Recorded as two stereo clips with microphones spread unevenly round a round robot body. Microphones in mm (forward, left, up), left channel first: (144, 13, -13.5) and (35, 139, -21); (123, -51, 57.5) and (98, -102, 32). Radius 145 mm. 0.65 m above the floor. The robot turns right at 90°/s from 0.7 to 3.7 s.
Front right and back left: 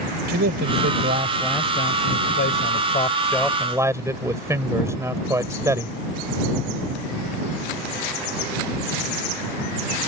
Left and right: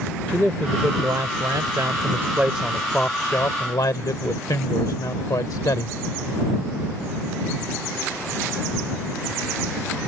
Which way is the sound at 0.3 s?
150° left.